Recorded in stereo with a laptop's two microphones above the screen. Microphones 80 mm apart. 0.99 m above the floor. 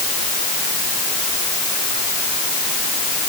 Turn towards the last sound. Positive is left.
No sound to turn to.